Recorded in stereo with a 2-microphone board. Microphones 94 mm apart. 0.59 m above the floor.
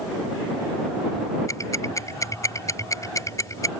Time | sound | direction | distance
1.5 | ticking | 30° left (ahead or behind) | ?